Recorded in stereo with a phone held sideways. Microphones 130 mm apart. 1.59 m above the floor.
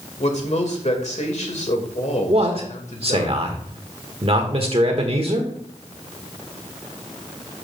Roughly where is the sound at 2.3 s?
Right.